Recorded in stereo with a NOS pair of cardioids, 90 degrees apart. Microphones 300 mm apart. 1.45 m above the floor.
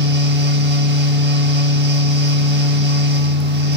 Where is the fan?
35° right, 1.6 m.